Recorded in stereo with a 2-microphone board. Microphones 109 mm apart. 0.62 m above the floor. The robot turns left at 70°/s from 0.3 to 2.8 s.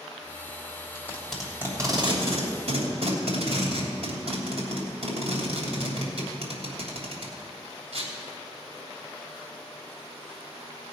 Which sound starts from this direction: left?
Tape being pulled, at 0.9 s.